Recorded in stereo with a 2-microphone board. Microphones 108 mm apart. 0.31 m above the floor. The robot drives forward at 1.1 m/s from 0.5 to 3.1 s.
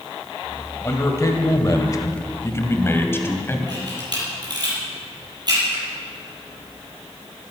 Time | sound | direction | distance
0.8 | a man speaking | 30° left (ahead or behind) | 1.8 m
3.7 | a camera shutter | 40° right (ahead or behind) | 7.5 m